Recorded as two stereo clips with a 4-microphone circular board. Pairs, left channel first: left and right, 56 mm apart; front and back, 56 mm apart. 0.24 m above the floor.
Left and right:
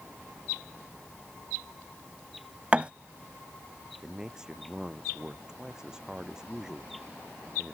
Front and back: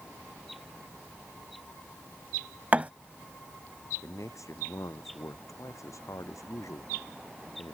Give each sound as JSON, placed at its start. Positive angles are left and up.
{"t": 2.7, "sound": "a thud", "azimuth_deg": -140}
{"t": 4.0, "sound": "a man speaking", "azimuth_deg": -15}